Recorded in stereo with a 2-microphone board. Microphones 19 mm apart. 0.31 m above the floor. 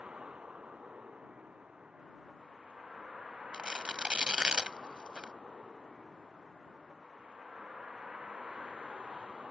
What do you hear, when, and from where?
0.0 s a vehicle: 50° right (ahead or behind)
3.5 s tearing paper: 55° right (ahead or behind)